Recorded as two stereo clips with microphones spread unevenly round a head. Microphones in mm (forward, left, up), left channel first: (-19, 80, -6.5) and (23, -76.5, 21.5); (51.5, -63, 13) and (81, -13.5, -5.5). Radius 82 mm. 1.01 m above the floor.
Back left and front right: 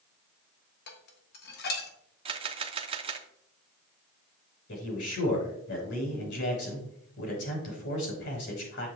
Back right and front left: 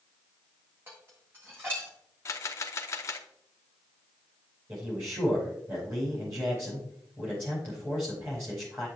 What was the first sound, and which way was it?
Dishes clattering, 135° left.